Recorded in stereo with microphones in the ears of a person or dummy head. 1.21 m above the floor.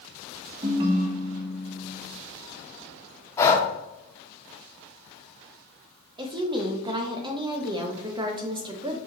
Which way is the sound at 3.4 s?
15° left (ahead or behind).